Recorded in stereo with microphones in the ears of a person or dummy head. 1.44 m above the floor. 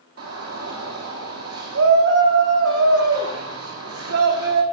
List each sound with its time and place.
0.2 s a shout: 65° right (ahead or behind), 0.9 m